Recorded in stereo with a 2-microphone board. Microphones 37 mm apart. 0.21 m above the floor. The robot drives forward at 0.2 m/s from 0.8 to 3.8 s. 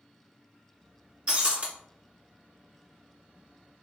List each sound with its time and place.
1.3 s breaking glass: 30° right (ahead or behind), 0.9 m; by 1.7 s 35° right (ahead or behind), 0.8 m